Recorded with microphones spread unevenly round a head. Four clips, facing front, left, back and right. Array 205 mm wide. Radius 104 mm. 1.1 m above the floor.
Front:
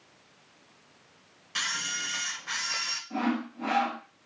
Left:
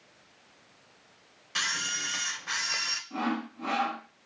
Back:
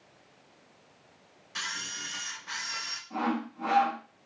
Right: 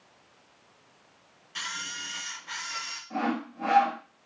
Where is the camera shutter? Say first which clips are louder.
Left 4 dB, front 4 dB; 55° left, 1.1 m.